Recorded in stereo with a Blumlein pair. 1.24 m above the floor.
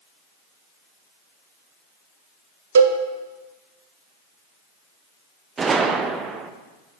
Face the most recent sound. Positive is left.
turn(degrees=-20)